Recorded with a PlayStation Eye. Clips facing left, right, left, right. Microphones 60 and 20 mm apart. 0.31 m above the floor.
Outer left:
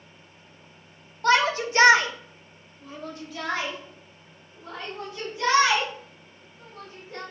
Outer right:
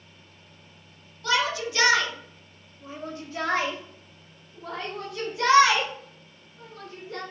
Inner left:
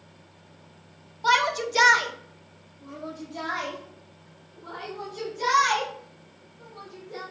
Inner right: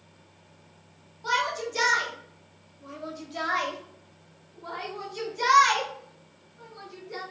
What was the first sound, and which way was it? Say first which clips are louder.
A shout: outer left 5 dB, inner left 5 dB; 45° left (ahead or behind).